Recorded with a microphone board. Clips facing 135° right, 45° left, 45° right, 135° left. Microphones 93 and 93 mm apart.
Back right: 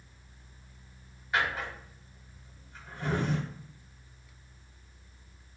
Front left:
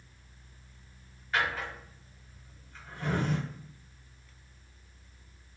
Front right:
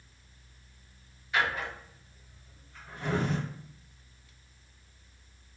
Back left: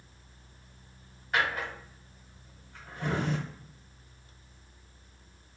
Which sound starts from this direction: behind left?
A drawer, at 1.3 s.